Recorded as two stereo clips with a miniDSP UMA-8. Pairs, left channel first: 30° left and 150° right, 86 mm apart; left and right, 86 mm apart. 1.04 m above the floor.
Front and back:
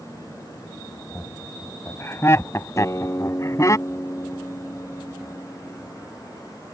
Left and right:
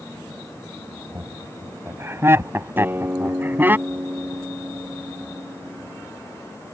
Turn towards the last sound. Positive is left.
turn(degrees=-25)